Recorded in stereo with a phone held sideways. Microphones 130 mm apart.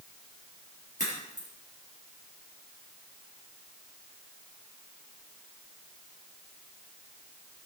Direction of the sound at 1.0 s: 75° left (ahead or behind).